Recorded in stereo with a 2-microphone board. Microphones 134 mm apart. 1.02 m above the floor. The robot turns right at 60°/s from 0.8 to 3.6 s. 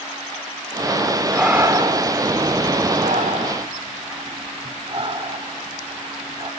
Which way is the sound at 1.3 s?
Centre (ahead or behind).